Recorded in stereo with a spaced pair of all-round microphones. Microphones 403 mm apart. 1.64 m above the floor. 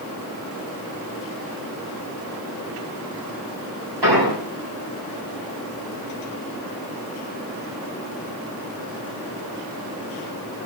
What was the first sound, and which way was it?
An explosion, 85° right.